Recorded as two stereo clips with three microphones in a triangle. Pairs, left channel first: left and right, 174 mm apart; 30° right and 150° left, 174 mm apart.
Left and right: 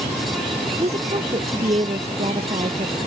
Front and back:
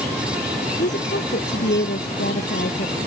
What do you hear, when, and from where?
0.8 s a woman speaking: 40° right